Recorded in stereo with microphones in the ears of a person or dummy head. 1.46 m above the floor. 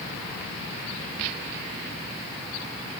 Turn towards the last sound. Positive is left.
No sound to turn to.